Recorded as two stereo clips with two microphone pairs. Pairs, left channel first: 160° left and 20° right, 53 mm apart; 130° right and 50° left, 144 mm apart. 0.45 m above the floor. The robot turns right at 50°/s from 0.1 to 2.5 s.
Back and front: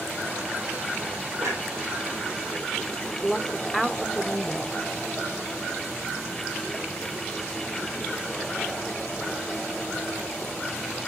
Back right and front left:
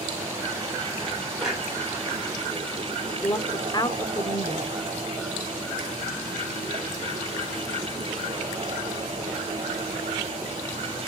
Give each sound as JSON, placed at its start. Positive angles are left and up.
{"t": 1.4, "sound": "a clunk", "azimuth_deg": -40, "distance_m": 6.5}
{"t": 3.2, "sound": "a woman speaking", "azimuth_deg": -105, "distance_m": 0.9}